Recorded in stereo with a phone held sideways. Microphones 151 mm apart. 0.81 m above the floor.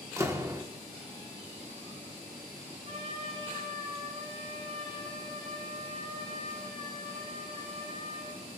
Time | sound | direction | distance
0.2 | a door slam | 20° right (ahead or behind) | 1.1 m
2.9 | a trumpet | 45° right (ahead or behind) | 5 m